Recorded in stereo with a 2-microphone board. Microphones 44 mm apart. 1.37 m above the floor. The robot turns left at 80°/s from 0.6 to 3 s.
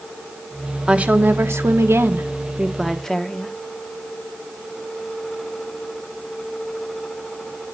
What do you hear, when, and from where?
0.9 s a woman speaking: 20° right, 1.2 m; by 3.5 s 170° left, 1.2 m